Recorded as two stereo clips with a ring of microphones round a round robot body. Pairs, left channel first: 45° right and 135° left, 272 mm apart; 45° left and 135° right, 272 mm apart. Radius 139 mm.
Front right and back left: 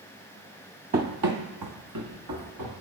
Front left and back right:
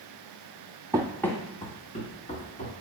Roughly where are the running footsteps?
Behind.